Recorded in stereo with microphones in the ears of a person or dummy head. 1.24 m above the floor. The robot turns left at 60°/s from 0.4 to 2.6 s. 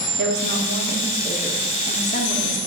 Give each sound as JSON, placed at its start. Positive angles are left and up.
{"t": 0.2, "sound": "a woman speaking", "azimuth_deg": -115, "distance_m": 1.7}